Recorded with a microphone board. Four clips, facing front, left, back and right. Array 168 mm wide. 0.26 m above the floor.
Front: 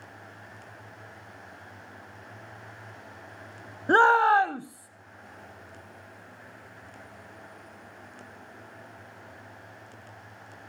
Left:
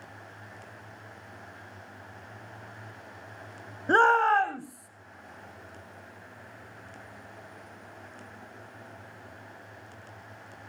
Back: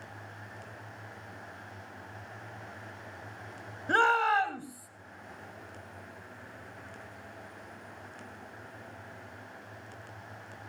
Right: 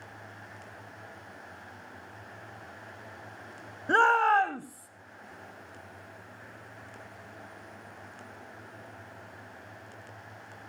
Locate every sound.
3.9 s a shout: 25° left, 1.0 m; by 4.9 s 40° right, 1.0 m